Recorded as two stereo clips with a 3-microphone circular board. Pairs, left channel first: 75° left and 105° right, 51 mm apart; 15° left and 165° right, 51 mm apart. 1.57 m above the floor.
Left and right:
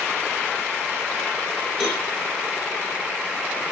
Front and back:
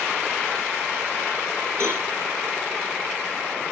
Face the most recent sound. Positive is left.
turn(degrees=165)